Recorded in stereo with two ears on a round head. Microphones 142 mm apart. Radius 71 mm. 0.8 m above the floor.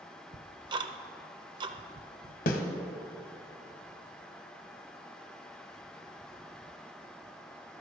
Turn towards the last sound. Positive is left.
turn(degrees=55)  # may be behind; listen again after turning